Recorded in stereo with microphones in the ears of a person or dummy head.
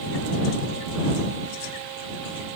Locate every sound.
Only background noise.